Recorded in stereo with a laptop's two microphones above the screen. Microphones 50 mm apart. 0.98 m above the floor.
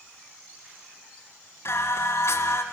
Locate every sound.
1.6 s singing: 70° left (ahead or behind), 2 m